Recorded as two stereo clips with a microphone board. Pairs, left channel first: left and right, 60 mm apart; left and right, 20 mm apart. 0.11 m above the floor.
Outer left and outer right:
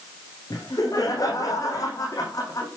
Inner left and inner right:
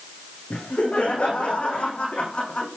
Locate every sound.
0.5 s laughter: 65° left (ahead or behind), 7 m